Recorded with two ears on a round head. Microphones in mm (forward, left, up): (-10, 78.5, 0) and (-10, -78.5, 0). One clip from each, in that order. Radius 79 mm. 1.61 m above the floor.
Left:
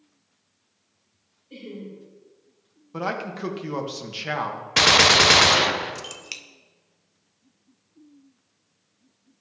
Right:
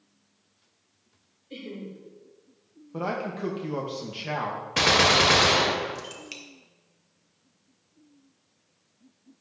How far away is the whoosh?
I don't hear a whoosh.